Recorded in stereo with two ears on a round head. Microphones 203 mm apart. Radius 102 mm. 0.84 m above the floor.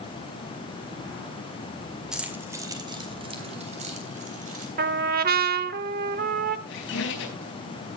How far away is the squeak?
About 4.5 m.